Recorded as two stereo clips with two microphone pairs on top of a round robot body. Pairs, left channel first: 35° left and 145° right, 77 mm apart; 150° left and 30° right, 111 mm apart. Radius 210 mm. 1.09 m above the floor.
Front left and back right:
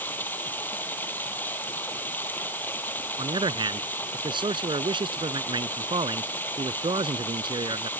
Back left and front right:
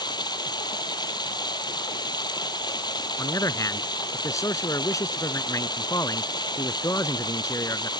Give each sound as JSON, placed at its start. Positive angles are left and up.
{"t": 0.0, "sound": "running water", "azimuth_deg": 100}
{"t": 3.2, "sound": "a man speaking", "azimuth_deg": -145}